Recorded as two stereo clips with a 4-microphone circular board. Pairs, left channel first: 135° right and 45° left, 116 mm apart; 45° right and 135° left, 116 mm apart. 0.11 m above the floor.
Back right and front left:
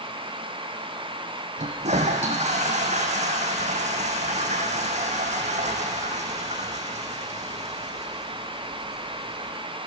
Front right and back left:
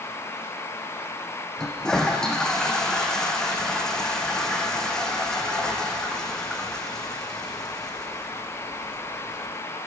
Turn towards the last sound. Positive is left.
turn(degrees=40)